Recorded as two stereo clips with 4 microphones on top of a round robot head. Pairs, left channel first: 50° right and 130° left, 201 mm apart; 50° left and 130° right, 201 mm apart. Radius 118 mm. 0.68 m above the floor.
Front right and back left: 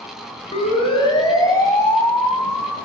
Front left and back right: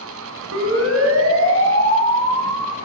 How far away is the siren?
About 5 m.